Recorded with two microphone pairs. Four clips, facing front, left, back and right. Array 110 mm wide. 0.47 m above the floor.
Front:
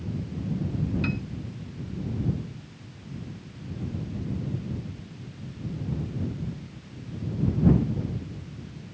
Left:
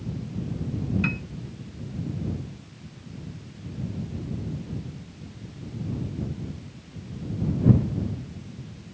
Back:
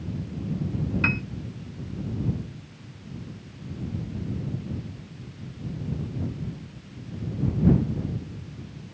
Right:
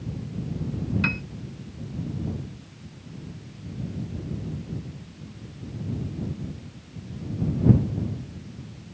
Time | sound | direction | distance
1.0 | a piano | 145° right | ?